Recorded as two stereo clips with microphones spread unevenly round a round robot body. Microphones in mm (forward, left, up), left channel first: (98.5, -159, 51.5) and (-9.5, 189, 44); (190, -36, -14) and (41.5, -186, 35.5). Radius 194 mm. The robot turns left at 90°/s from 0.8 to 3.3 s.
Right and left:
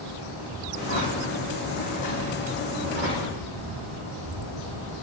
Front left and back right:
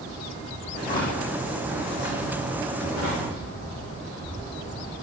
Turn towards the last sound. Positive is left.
turn(degrees=145)